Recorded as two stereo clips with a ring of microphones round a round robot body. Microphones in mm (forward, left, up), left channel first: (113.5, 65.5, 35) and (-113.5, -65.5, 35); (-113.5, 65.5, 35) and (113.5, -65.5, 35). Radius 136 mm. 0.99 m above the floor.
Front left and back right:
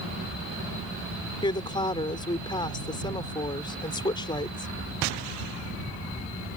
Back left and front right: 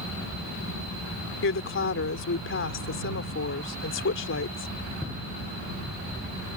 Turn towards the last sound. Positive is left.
turn(degrees=105)